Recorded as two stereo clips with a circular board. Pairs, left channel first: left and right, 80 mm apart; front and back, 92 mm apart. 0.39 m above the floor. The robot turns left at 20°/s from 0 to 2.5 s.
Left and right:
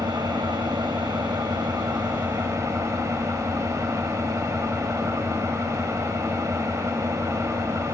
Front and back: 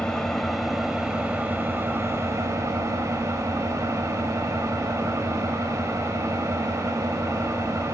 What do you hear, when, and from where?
0.0 s an engine running: 80° right, 0.9 m; by 7.9 s 130° right, 0.9 m